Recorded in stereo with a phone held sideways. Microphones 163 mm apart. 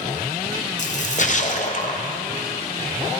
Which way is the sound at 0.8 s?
50° left (ahead or behind).